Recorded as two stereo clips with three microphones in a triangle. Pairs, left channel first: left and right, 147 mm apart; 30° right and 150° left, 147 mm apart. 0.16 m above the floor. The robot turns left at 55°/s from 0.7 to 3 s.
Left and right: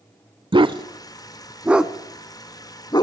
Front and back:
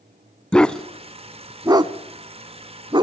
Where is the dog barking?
110° right, 0.5 m; by 3.0 s 125° left, 0.5 m.